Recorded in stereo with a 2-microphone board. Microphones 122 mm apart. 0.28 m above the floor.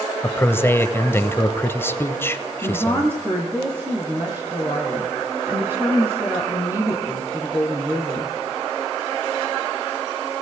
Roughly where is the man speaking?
Centre.